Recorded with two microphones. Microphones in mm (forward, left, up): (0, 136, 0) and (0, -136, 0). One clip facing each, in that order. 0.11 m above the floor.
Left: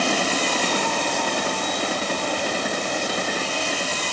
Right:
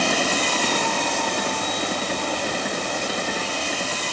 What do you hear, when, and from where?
Only background noise.